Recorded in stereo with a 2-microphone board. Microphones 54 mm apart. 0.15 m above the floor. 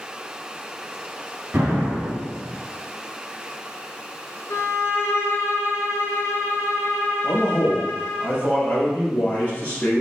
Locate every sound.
1.5 s an explosion: 45° right (ahead or behind), 1.2 m
4.5 s a violin: 60° left (ahead or behind), 0.5 m
7.2 s a man speaking: 30° left (ahead or behind), 1.3 m